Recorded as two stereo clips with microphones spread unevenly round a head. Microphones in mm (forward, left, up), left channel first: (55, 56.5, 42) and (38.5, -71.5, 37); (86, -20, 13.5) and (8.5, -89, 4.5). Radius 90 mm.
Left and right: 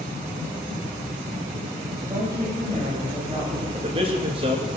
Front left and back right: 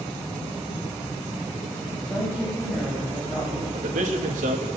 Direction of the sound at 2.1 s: 35° right.